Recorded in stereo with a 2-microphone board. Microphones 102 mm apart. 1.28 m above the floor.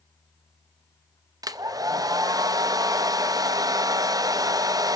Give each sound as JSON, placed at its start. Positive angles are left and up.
{"t": 1.4, "sound": "a hair dryer", "side_deg": -35, "distance_m": 0.7}